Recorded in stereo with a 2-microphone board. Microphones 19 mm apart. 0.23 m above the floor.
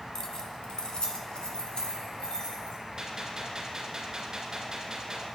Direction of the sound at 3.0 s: 40° right (ahead or behind).